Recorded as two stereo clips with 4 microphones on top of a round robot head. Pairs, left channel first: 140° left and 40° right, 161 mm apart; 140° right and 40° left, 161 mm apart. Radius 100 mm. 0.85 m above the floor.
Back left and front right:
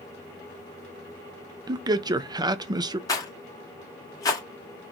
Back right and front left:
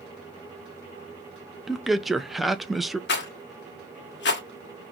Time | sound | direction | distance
1.7 | a man speaking | 45° right | 0.6 m
3.1 | a rattle | 150° right | 1.4 m